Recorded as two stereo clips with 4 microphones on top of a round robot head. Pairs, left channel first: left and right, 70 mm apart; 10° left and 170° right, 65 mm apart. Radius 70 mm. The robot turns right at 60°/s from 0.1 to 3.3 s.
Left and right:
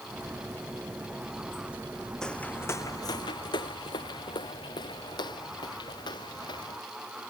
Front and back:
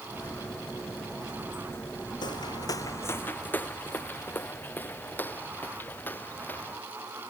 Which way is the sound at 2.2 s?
10° left.